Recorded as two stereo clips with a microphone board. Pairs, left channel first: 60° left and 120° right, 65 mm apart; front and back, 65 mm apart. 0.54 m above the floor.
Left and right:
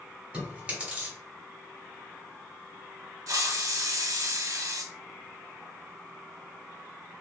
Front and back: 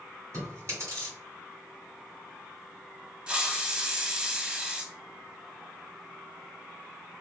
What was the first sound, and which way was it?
Chewing, 175° left.